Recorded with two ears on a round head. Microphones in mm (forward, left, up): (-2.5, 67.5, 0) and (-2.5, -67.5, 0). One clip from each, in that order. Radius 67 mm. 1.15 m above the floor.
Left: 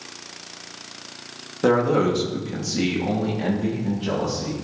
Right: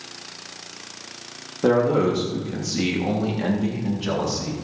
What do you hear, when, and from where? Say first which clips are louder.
1.6 s a man speaking: even; 30° left (ahead or behind), 2.5 m; by 4.5 s 35° right (ahead or behind), 3.5 m